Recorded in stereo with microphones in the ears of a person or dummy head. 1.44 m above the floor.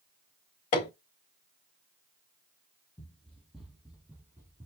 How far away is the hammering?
About 1.4 m.